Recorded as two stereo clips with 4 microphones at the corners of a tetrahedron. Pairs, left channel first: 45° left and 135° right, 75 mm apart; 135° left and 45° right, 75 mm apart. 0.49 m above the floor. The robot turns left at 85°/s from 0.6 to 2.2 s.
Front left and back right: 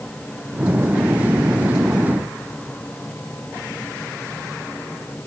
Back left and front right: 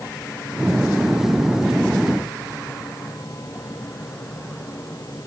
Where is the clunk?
I don't hear a clunk.